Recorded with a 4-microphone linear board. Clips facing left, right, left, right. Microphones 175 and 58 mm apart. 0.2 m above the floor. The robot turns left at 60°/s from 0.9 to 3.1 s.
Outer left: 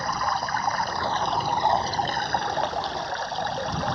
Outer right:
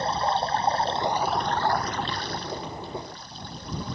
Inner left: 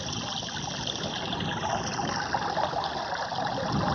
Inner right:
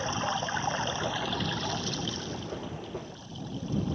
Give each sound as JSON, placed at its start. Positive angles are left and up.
{"t": 0.0, "sound": "running water", "azimuth_deg": -155}